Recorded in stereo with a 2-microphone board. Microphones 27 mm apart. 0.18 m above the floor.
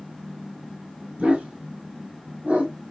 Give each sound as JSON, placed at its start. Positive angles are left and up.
{"t": 1.2, "sound": "a dog barking", "side_deg": -50, "distance_m": 1.5}